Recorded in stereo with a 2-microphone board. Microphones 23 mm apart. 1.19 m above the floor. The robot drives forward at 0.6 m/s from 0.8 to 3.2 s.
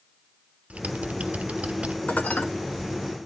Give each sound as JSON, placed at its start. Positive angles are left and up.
{"t": 0.7, "sound": "typing on a keyboard", "side_deg": -60, "distance_m": 0.7}
{"t": 2.1, "sound": "dishes clattering", "side_deg": 80, "distance_m": 1.2}